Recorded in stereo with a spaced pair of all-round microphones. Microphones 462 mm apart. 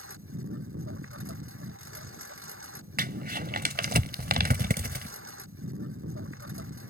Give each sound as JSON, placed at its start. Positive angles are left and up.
{"t": 0.0, "sound": "a lawn mower", "side_deg": -25}
{"t": 3.0, "sound": "crumpling", "side_deg": -20}